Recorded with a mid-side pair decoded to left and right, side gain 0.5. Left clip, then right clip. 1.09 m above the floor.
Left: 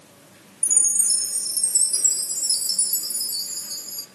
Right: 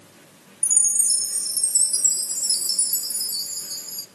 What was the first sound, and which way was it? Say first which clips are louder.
A chime: even; 5° right.